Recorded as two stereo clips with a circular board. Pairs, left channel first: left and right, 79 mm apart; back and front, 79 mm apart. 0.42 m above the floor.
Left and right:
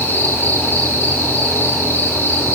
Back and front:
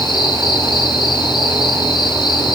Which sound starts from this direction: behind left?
An insect, at 0.0 s.